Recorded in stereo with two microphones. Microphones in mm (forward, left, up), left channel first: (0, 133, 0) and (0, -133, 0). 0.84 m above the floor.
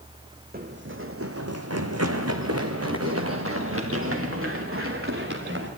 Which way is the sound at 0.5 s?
35° right (ahead or behind).